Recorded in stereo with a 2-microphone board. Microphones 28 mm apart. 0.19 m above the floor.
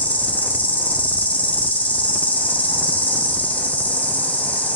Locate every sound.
0.0 s an insect: 70° left (ahead or behind), 1.2 m